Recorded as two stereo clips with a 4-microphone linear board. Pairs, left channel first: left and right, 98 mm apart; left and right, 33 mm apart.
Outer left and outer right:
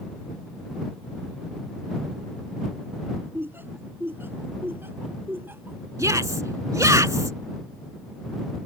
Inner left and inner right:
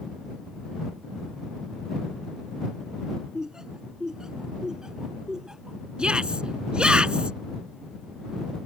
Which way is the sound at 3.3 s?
25° right (ahead or behind).